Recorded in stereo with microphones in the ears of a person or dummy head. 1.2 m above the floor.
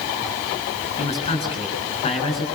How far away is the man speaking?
About 7.5 m.